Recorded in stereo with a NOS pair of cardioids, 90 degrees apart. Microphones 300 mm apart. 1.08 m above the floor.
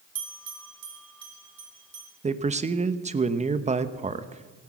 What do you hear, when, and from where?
0.1 s a bell: 55° right, 2.5 m
2.2 s a man speaking: 25° right, 1.0 m